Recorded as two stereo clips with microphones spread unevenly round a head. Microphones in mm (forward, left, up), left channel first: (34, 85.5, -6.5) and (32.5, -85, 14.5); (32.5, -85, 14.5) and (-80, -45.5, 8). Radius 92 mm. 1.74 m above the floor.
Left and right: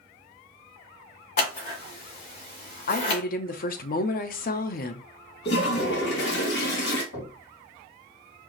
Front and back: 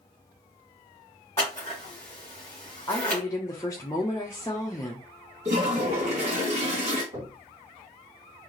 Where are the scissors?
55° left, 2.5 m.